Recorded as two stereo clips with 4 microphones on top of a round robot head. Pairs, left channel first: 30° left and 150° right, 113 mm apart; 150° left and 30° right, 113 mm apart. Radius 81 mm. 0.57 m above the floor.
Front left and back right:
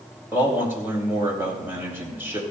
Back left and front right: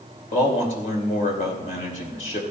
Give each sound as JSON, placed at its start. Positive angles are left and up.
{"t": 0.3, "sound": "a man speaking", "azimuth_deg": 140, "distance_m": 4.0}